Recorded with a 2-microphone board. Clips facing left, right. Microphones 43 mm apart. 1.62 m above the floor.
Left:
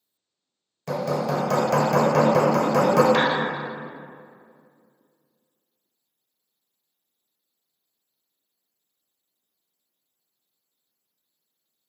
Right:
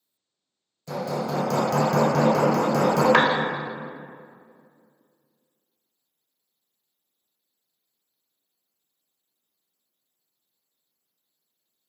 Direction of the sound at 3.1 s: 55° right (ahead or behind).